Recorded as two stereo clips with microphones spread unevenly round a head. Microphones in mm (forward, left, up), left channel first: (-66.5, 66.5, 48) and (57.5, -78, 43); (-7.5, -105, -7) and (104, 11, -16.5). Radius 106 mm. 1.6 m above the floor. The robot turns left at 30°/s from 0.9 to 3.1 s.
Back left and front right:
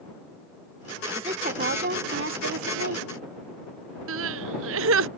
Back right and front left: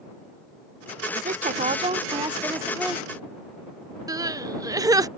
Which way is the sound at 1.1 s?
15° left.